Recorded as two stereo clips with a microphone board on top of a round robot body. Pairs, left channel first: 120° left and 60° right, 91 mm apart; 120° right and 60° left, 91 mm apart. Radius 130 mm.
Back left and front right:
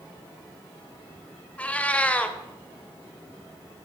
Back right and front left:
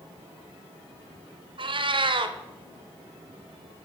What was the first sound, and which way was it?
A cat meowing, 45° left.